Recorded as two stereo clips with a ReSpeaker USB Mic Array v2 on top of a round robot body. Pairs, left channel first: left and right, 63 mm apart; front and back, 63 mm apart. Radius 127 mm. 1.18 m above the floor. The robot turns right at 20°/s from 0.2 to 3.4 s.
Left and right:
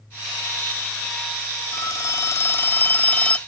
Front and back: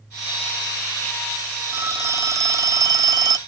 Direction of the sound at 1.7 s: 130° left.